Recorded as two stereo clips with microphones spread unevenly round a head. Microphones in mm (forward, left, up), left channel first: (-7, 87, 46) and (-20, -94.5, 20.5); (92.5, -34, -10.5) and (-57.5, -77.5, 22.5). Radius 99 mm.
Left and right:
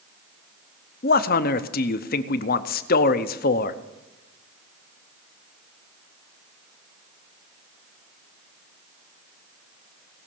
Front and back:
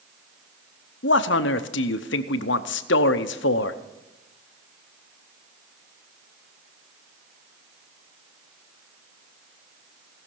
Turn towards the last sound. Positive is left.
turn(degrees=40)